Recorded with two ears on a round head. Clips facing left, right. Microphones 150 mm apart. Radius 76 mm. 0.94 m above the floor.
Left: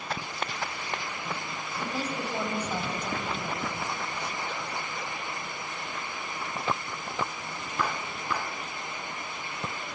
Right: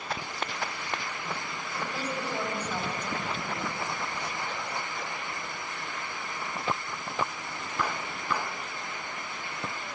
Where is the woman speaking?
15° left (ahead or behind), 6 m.